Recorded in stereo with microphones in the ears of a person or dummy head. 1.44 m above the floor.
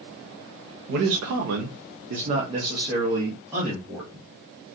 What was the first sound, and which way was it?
A man speaking, 65° right (ahead or behind).